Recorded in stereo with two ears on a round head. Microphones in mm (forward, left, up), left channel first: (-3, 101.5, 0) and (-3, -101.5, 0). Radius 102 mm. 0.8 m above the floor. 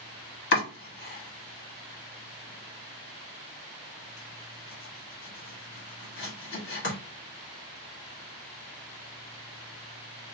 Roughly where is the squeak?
I don't hear a squeak.